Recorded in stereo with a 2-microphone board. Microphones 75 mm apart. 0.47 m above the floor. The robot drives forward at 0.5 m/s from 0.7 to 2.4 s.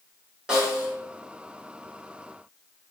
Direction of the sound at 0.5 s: 15° right (ahead or behind).